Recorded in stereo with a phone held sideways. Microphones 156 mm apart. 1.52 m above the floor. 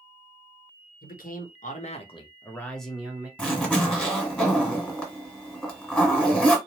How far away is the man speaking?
About 1.0 m.